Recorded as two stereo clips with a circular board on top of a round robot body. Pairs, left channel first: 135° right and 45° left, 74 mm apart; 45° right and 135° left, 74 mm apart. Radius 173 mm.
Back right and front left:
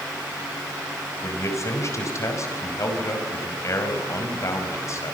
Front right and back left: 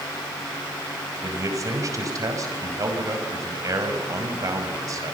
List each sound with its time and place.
1.2 s a man speaking: 175° left, 5 m